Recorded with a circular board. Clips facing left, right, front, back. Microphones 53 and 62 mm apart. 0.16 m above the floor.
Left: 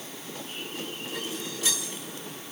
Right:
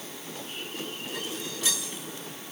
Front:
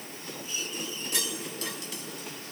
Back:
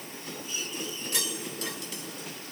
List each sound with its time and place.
Only background noise.